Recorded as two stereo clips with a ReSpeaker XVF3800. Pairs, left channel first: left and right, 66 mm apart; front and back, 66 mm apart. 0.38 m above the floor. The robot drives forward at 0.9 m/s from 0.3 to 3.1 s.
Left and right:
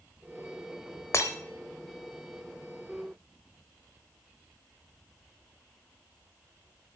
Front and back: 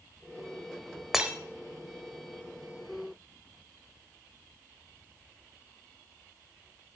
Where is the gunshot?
No gunshot in this recording.